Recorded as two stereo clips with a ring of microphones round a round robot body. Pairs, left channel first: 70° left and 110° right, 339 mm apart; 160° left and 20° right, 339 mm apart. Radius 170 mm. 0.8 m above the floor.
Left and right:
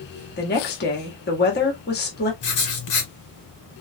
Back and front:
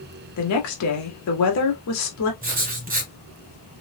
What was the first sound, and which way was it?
A woman speaking, 125° left.